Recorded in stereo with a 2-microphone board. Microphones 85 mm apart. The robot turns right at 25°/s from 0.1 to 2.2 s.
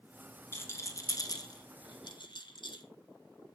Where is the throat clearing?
No throat clearing in this recording.